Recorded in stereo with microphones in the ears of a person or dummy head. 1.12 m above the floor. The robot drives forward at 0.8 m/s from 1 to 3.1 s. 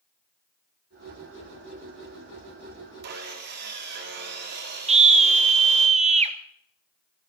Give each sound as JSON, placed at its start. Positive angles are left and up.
{"t": 3.0, "sound": "sawing", "side_deg": -60, "distance_m": 2.0}
{"t": 4.9, "sound": "a scream", "side_deg": -30, "distance_m": 1.2}